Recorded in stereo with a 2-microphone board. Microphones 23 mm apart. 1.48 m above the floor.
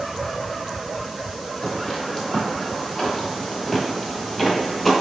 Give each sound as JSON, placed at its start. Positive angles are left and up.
{"t": 1.6, "sound": "footsteps", "side_deg": 15, "distance_m": 2.0}